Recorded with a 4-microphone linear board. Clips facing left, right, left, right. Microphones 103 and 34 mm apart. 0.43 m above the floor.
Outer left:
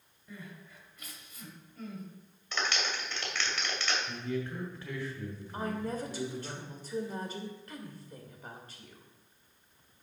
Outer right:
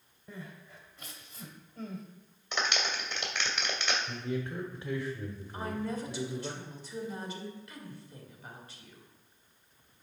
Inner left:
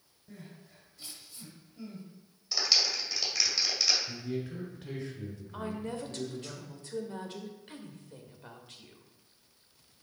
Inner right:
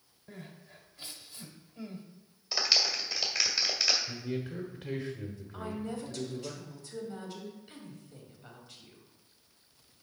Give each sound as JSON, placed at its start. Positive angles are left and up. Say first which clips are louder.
{"t": 0.3, "sound": "crying", "louder": "outer right 1 dB, inner right 2 dB", "side_deg": -30, "distance_m": 1.3}
{"t": 2.5, "sound": "a clap", "louder": "outer right 1 dB, even", "side_deg": -20, "distance_m": 2.0}
{"t": 4.1, "sound": "a man speaking", "louder": "even, even", "side_deg": -20, "distance_m": 1.0}
{"t": 5.5, "sound": "a woman speaking", "louder": "outer left 1 dB, inner left 1 dB", "side_deg": 40, "distance_m": 1.6}